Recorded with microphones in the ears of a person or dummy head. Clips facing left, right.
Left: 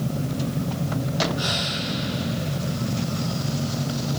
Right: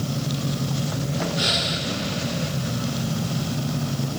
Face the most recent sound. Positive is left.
turn(degrees=-35)  # may be behind; listen again after turning